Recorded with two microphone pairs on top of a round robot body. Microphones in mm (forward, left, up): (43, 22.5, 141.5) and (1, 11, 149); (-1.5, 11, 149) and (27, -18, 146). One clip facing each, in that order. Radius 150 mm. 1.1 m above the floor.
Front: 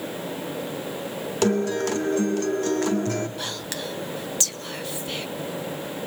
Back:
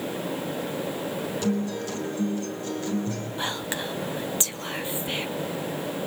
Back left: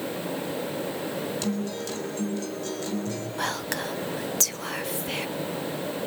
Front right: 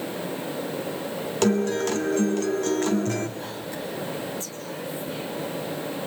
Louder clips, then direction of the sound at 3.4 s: Back 2 dB, back left 4 dB; 130° left.